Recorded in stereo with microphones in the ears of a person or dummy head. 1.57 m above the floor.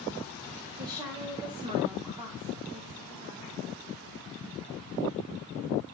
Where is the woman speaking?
20° right (ahead or behind), 2.5 m.